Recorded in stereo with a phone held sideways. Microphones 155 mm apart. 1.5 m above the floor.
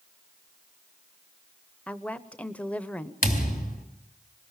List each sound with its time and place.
1.9 s a woman speaking: 10° left (ahead or behind), 0.8 m
3.2 s a thud: 65° left (ahead or behind), 2.5 m